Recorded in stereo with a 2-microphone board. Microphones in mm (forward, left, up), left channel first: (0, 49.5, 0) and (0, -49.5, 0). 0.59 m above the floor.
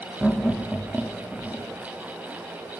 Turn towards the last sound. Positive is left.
turn(degrees=5)  # may be behind; listen again after turning